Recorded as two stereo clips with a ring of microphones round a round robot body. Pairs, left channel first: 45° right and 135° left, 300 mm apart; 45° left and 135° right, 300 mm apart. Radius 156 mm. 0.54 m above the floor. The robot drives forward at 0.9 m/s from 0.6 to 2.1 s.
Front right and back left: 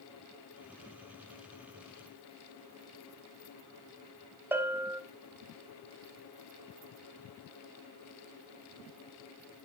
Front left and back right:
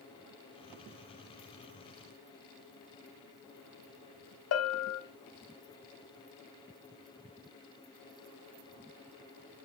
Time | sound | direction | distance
4.5 | a bell | 55° left | 1.5 m